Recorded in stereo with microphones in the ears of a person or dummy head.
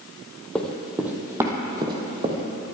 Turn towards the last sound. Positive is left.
turn(degrees=-35)  # may be behind; listen again after turning